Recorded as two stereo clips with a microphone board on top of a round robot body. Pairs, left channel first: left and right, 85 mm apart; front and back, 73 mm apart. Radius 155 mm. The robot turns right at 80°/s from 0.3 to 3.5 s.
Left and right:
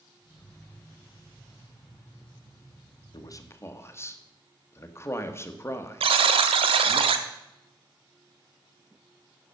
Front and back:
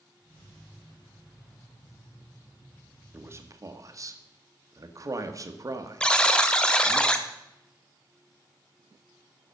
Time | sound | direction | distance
3.1 | a man speaking | 115° left | 1.5 m
6.0 | a buzzer | 80° right | 0.7 m